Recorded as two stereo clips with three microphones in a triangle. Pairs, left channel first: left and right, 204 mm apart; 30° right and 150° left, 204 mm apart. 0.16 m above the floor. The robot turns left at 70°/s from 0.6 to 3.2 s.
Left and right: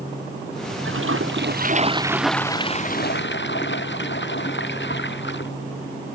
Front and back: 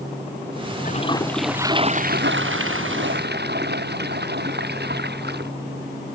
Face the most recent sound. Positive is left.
turn(degrees=115)